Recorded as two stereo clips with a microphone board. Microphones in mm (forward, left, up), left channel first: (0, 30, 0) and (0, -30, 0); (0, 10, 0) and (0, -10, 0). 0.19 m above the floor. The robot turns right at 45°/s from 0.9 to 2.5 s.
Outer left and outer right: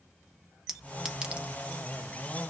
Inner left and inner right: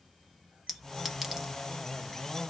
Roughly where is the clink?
Centre.